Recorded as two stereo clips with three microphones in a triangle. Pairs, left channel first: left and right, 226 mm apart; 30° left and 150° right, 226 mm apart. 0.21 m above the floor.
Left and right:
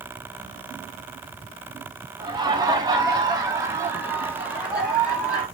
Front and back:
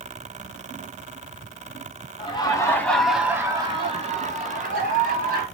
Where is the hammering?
I don't hear hammering.